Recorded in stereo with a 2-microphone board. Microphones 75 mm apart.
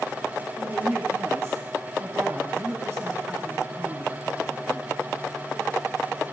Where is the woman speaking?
35° right (ahead or behind), 2.5 m.